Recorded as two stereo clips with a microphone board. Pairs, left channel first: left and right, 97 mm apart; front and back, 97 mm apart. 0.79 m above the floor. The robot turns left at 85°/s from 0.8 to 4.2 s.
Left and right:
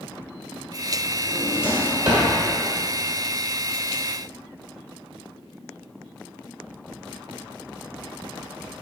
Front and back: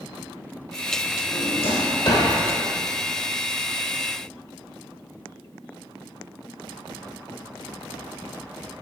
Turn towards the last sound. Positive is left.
turn(degrees=130)